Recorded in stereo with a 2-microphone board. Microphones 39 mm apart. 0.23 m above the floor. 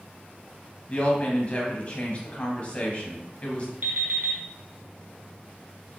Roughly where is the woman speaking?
Left.